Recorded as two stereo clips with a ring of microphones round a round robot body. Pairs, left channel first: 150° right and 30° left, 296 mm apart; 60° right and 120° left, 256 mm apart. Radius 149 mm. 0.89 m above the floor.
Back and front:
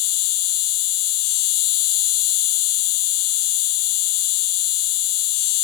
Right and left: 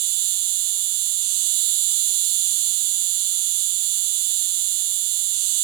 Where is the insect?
165° left.